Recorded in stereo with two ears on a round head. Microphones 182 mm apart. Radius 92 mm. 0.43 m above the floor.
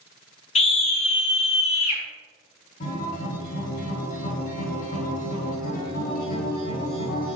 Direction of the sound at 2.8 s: 45° left (ahead or behind).